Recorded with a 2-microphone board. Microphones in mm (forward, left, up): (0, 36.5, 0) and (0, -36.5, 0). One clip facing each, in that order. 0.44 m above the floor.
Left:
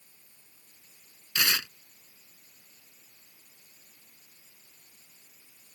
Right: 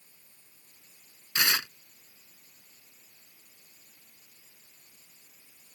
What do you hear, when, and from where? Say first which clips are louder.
1.4 s tearing paper: right 1 dB; 25° right (ahead or behind)